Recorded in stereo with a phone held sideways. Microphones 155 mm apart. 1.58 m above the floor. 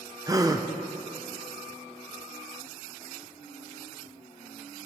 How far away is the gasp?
About 0.7 m.